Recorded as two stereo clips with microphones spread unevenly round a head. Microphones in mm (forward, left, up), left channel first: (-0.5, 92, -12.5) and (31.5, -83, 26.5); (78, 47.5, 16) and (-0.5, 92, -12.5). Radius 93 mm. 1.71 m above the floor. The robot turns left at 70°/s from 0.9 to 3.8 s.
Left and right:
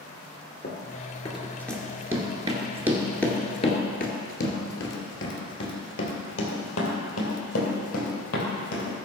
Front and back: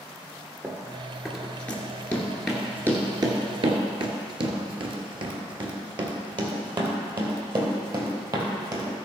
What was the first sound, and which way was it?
Running footsteps, 80° left.